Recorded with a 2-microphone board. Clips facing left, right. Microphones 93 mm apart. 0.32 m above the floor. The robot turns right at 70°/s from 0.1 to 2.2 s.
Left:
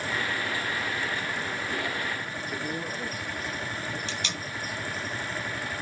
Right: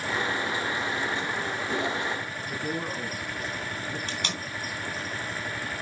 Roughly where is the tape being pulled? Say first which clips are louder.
Right 1 dB; right.